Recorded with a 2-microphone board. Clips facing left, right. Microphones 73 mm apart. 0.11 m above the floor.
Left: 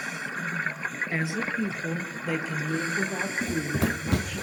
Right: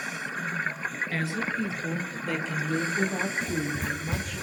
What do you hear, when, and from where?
1.1 s a woman speaking: 20° left (ahead or behind), 1.2 m; by 4.4 s centre (ahead or behind), 5 m
3.4 s running footsteps: 30° left (ahead or behind), 0.5 m; by 4.4 s 55° left (ahead or behind), 1.3 m